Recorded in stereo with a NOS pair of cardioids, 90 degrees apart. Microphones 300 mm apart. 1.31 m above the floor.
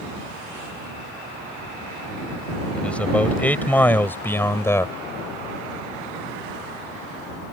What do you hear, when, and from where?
2.7 s a man speaking: 5° left; by 5.0 s 10° left